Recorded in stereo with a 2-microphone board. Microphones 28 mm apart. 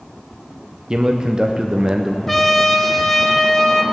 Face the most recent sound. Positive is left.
turn(degrees=5)  # may be behind; listen again after turning